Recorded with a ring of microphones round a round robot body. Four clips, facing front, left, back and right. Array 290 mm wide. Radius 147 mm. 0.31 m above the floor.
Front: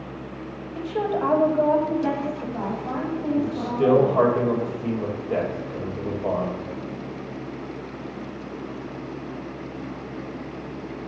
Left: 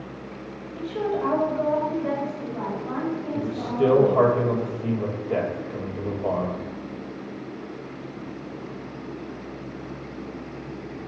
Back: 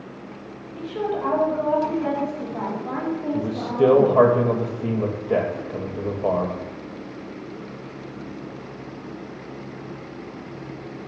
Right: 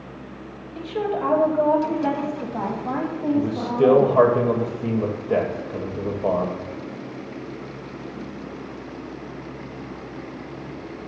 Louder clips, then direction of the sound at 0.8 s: Right 1 dB, front 1 dB; 15° right.